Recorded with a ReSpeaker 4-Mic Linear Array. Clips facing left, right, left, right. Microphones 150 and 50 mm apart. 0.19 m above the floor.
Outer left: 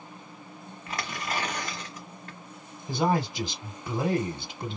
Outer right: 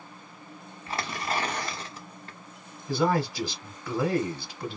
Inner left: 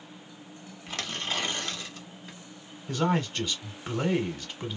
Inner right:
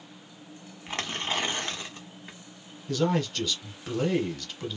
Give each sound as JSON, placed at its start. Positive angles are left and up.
{"t": 0.9, "sound": "tearing paper", "side_deg": -30, "distance_m": 1.1}
{"t": 2.9, "sound": "a man speaking", "side_deg": 20, "distance_m": 1.1}